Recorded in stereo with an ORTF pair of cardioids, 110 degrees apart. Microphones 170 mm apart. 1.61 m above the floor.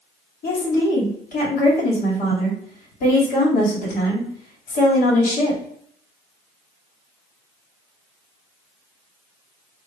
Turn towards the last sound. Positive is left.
turn(degrees=65)